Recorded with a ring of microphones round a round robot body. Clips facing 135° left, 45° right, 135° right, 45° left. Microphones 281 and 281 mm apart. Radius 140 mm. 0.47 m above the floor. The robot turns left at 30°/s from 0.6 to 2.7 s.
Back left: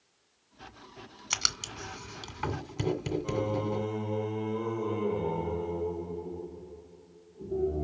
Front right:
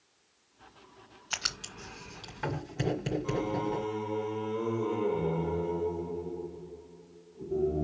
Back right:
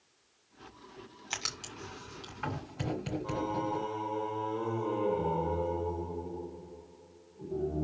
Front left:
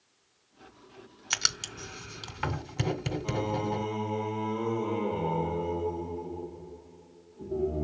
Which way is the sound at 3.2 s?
50° left.